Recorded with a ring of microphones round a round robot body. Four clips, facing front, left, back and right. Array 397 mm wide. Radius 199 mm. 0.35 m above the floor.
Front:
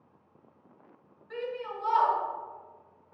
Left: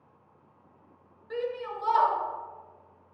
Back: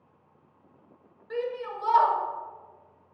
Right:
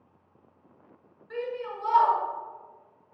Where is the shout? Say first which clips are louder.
Left 1 dB, back 4 dB; 150° left, 1.9 m.